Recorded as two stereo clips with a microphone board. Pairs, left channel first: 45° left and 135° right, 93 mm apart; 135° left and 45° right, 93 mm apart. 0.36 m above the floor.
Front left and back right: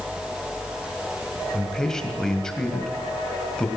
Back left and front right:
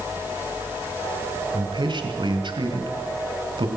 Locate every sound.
1.5 s a man speaking: 35° right, 2.5 m